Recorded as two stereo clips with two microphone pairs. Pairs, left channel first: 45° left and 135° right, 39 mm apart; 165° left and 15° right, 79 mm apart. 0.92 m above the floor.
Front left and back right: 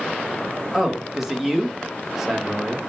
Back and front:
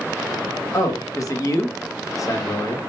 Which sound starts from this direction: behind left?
A man speaking, at 0.7 s.